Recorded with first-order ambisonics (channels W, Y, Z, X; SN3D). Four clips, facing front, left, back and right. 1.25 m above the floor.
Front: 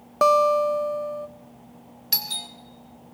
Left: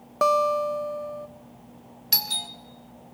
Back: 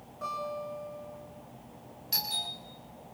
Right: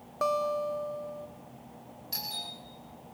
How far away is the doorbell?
About 2.5 m.